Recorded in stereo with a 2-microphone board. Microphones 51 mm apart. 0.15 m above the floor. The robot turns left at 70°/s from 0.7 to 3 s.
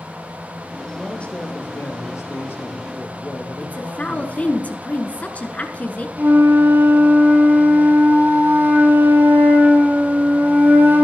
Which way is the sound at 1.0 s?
170° left.